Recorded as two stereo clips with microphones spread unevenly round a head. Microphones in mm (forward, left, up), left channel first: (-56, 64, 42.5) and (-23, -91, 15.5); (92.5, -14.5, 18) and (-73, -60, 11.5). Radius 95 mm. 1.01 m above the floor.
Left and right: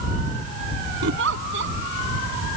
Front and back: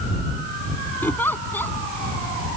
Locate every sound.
1.0 s a giggle: 65° right